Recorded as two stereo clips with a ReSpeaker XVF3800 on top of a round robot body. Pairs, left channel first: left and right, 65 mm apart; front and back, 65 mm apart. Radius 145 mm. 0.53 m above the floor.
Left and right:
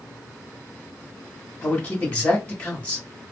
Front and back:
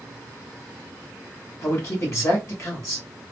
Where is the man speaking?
25° left, 1.5 m.